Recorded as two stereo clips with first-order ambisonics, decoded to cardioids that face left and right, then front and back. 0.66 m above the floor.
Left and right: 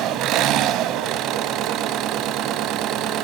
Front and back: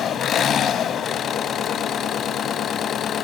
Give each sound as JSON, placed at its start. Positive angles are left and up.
{"t": 0.0, "sound": "an engine running", "azimuth_deg": -55, "distance_m": 0.8}